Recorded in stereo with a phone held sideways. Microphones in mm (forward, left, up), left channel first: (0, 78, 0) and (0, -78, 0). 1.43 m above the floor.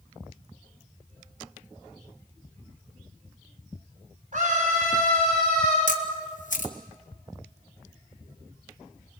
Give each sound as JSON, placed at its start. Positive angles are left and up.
{"t": 4.3, "sound": "a scream", "side_deg": -60, "distance_m": 5.5}
{"t": 5.9, "sound": "a camera shutter", "side_deg": 60, "distance_m": 1.8}